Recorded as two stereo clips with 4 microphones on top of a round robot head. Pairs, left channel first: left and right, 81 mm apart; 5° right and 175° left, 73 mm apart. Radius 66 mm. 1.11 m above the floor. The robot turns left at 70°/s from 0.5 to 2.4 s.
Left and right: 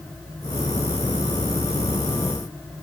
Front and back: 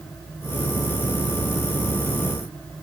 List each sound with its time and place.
Only background noise.